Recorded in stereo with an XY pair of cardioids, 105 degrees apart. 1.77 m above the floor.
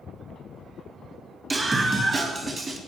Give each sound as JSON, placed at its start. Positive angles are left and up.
{"t": 1.5, "sound": "a scream", "azimuth_deg": -30, "distance_m": 2.5}